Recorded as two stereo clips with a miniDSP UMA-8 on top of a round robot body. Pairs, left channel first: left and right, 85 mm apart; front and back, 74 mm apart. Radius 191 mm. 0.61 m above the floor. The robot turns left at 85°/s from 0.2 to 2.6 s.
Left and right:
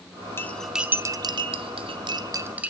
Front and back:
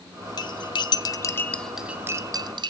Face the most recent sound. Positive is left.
turn(degrees=-165)